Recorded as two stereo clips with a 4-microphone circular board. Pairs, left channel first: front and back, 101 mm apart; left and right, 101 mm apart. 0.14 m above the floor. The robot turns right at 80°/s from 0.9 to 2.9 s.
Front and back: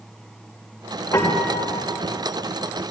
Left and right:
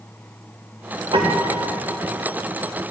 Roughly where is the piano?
Ahead right.